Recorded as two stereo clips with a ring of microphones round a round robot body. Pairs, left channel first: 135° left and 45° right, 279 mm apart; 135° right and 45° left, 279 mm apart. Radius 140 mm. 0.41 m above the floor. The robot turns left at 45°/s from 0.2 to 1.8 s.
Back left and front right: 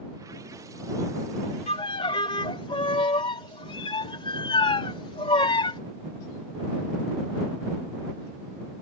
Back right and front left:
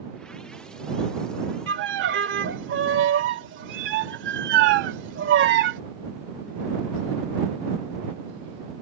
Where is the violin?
75° left; by 5.8 s 70° left.